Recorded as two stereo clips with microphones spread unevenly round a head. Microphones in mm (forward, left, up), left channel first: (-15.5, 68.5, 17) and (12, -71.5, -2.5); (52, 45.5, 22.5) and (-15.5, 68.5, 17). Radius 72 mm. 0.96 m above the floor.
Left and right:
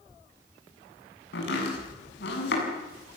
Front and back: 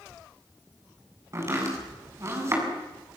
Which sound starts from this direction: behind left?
Chopping, at 1.3 s.